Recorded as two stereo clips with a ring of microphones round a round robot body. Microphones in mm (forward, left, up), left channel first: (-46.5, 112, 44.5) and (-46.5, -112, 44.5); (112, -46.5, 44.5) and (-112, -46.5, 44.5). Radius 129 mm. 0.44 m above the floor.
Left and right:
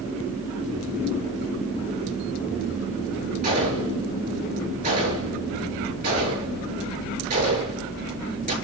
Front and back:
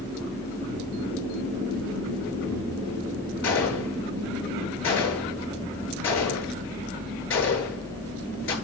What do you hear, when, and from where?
3.4 s a gunshot: 30° right, 7.5 m